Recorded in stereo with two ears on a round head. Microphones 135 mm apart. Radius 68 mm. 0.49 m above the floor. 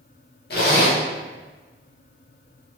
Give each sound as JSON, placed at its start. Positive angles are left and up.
{"t": 0.5, "sound": "a zipper", "side_deg": 70, "distance_m": 0.9}